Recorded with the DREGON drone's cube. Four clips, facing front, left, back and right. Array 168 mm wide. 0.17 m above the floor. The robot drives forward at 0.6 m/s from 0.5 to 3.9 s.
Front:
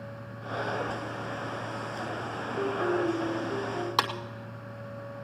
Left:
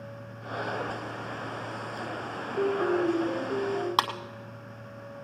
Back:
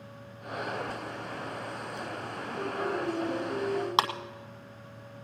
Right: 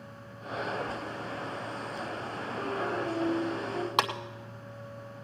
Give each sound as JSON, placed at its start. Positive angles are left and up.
{"t": 2.6, "sound": "a piano", "azimuth_deg": 80, "distance_m": 4.5}
{"t": 4.0, "sound": "a clap", "azimuth_deg": 140, "distance_m": 1.3}